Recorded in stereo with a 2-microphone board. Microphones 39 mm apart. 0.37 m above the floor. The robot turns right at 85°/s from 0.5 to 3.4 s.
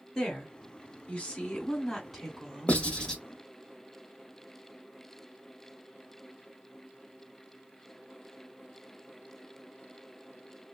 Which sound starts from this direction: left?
Writing, at 2.7 s.